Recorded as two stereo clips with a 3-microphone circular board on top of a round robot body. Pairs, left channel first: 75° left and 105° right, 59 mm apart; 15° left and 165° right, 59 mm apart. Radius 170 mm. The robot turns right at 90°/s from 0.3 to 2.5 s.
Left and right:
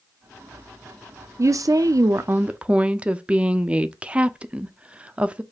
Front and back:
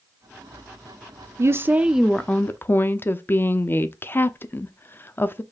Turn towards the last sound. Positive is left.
turn(degrees=-35)